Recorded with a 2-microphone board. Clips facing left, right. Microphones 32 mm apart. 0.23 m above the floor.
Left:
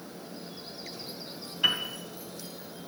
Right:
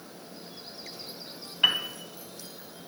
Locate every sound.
1.6 s a piano: 30° right (ahead or behind), 1.9 m